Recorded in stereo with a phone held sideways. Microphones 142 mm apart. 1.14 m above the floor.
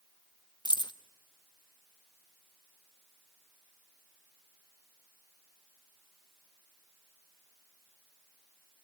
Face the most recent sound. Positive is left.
turn(degrees=30)  # may be behind; listen again after turning